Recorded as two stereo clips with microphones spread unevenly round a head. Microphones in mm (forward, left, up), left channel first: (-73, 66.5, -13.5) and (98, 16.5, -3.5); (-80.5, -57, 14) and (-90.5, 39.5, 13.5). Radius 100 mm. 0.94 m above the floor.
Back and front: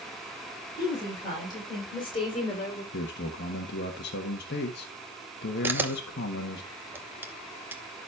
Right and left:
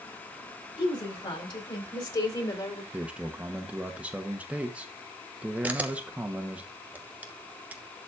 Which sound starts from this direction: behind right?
A woman speaking, at 0.8 s.